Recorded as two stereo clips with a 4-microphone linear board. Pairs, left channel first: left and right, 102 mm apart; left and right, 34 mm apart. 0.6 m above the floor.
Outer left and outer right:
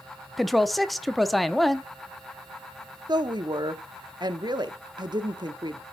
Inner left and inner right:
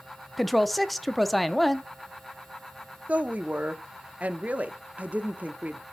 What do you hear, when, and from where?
0.4 s a woman speaking: centre (ahead or behind), 0.6 m
3.1 s a woman speaking: 45° right (ahead or behind), 0.8 m